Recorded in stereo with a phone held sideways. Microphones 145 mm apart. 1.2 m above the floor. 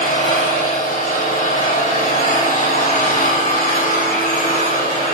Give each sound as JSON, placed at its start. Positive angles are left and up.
{"t": 0.0, "sound": "an engine running", "side_deg": 70, "distance_m": 5.5}